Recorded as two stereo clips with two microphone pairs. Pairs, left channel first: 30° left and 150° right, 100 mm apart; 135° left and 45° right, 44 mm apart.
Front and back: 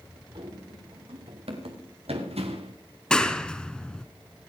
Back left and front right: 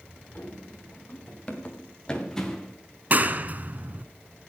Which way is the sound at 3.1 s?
45° right.